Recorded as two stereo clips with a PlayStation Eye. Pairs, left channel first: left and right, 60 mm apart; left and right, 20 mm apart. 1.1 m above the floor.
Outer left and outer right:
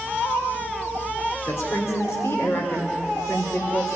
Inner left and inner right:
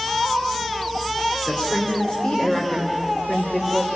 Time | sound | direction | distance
1.4 | a woman speaking | 50° left (ahead or behind) | 4 m